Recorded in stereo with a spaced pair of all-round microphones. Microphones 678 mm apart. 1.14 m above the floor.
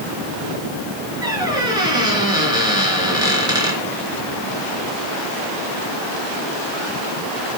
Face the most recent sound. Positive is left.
turn(degrees=-5)  # may be behind; listen again after turning